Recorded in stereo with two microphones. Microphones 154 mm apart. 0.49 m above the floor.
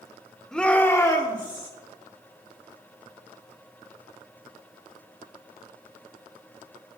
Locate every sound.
0.5 s a shout: 5° left (ahead or behind), 1.3 m; by 1.7 s 35° left (ahead or behind), 1.5 m